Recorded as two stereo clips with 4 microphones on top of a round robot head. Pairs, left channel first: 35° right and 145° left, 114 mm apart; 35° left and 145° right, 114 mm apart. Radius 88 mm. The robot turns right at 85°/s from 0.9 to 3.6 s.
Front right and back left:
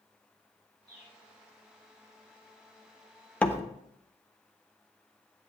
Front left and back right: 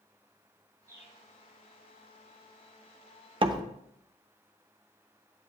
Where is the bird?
80° right, 3 m; by 1.1 s 60° right, 3 m.